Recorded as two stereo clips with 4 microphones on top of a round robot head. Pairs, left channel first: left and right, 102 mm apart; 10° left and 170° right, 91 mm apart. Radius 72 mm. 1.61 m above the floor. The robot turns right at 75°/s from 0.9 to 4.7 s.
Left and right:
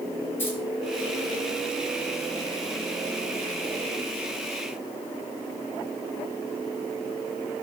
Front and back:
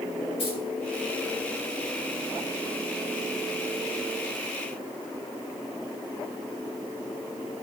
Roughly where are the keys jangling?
Ahead.